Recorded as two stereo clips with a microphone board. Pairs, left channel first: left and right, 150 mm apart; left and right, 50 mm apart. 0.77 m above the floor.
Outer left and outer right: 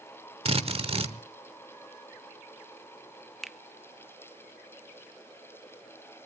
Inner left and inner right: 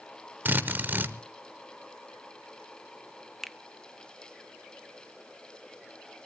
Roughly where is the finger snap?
Centre.